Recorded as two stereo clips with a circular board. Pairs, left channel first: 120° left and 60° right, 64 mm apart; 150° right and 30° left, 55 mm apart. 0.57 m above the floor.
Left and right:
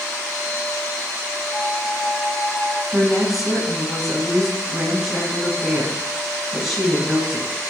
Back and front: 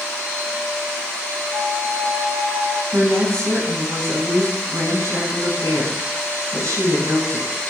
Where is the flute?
45° left, 6 m.